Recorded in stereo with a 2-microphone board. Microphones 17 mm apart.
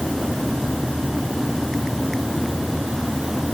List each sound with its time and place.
Only background noise.